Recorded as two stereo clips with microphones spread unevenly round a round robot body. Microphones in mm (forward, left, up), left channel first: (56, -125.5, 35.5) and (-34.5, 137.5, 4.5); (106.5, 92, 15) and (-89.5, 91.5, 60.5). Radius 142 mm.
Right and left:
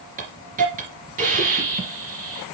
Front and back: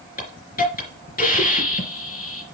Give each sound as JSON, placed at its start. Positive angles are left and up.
{"t": 0.2, "sound": "a hiss", "azimuth_deg": 45, "distance_m": 3.0}